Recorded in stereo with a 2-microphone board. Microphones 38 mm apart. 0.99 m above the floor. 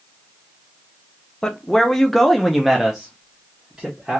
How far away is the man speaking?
About 0.6 m.